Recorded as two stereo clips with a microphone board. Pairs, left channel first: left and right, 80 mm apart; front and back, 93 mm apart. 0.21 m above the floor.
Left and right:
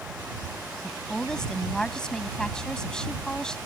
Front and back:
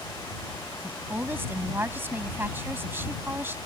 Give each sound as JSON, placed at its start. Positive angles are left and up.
{"t": 0.8, "sound": "a woman speaking", "azimuth_deg": 160}